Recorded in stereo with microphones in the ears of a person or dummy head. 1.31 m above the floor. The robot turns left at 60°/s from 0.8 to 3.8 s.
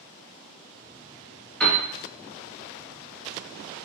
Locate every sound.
1.6 s a piano: 5° left (ahead or behind), 0.8 m; by 1.8 s 15° left (ahead or behind), 0.8 m